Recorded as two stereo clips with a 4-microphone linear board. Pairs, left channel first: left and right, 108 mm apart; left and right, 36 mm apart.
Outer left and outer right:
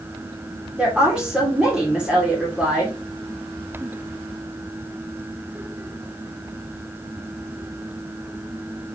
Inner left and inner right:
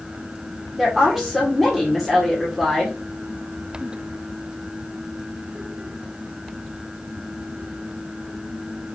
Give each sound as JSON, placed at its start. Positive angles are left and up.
{"t": 0.8, "sound": "a woman speaking", "side_deg": -10, "distance_m": 2.0}